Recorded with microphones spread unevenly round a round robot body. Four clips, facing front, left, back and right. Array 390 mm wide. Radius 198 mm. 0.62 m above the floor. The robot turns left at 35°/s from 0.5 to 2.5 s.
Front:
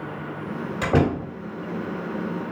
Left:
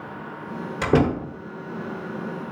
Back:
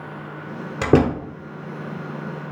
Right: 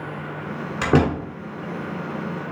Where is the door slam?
170° right, 1.6 m; by 1.2 s 175° left, 1.6 m.